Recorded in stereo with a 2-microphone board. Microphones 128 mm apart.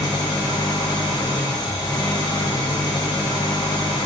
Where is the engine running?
30° left (ahead or behind), 1.0 m.